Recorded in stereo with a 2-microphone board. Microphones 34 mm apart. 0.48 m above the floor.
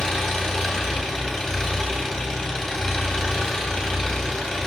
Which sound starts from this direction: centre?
An engine running, at 0.0 s.